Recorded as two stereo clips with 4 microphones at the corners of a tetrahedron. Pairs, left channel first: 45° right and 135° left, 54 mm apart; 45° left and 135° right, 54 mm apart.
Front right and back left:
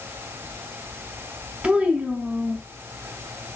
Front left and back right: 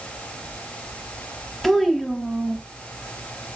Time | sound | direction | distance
1.6 | a child speaking | 125° left | 0.6 m